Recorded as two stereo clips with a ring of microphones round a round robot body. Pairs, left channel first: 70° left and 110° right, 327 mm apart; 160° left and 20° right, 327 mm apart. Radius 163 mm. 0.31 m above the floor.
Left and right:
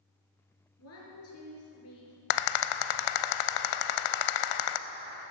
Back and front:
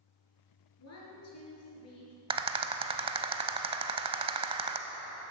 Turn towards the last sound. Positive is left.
turn(degrees=50)